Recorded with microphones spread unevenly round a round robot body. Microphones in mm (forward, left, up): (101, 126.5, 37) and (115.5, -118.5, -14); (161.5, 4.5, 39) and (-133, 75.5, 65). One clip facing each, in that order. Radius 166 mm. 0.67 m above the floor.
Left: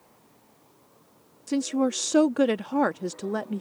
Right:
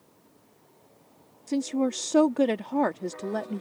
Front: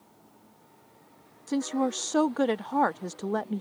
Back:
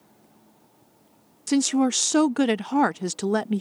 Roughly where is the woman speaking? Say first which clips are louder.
Left 1 dB, back 7 dB; behind.